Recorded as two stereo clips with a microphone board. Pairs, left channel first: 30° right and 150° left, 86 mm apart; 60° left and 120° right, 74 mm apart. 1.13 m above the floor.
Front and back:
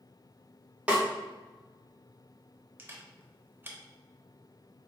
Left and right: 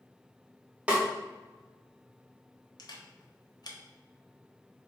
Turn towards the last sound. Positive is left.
turn(degrees=85)